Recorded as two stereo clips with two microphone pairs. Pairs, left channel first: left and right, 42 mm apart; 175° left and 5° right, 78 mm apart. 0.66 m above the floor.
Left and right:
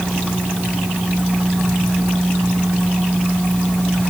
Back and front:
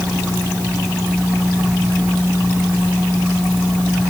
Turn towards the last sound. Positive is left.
No sound to turn to.